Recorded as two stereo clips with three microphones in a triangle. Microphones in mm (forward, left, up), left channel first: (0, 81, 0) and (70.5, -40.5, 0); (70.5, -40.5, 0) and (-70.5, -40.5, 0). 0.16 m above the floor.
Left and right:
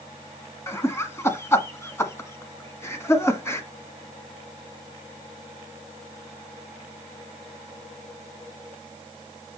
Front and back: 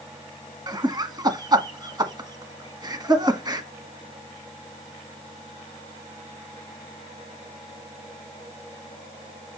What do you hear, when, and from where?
0.7 s laughter: 170° left, 1.4 m